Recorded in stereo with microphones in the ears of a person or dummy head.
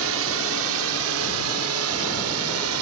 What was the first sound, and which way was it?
A drone, 70° right (ahead or behind).